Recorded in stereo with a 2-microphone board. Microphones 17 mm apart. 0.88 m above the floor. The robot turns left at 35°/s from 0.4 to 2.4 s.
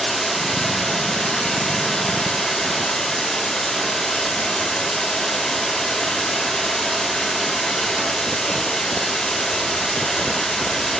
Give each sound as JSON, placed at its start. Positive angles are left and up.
{"t": 0.0, "sound": "running water", "azimuth_deg": 155, "distance_m": 2.5}